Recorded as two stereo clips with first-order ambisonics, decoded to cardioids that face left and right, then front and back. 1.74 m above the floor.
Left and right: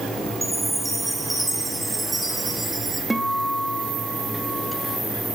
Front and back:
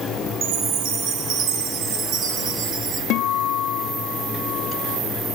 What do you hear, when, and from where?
0.4 s a chime: 175° right, 0.9 m
3.1 s a guitar: 10° right, 0.6 m